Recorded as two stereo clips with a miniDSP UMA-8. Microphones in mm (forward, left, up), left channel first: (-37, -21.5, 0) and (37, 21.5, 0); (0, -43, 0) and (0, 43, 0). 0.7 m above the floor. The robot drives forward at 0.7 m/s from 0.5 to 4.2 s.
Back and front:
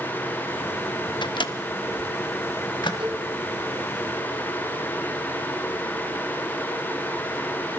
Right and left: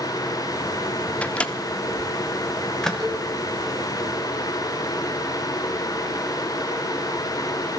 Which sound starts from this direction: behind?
A microwave, at 1.2 s.